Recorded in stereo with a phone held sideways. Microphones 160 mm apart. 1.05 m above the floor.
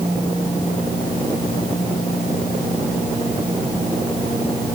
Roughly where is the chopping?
I don't hear chopping.